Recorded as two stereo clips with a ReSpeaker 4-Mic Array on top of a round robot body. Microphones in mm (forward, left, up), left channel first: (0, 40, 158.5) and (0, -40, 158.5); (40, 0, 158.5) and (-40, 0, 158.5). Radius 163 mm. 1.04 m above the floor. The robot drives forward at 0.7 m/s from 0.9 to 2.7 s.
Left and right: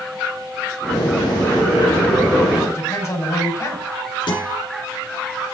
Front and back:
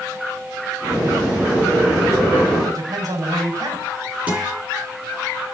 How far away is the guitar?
About 5.5 m.